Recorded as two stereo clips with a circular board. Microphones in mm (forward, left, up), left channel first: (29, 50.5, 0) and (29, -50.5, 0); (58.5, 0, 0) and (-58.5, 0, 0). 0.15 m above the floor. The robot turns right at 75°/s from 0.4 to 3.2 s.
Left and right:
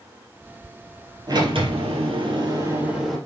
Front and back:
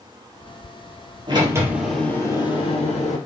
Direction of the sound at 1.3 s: 135° right.